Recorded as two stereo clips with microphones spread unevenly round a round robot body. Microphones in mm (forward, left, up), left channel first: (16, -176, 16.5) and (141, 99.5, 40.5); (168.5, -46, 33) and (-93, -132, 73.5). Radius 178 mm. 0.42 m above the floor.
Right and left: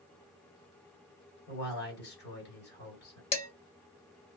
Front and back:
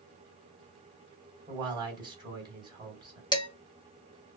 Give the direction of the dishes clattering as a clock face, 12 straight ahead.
2 o'clock.